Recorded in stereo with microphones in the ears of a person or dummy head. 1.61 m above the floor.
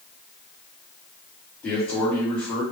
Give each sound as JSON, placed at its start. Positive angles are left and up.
{"t": 1.6, "sound": "a man speaking", "side_deg": 10, "distance_m": 1.3}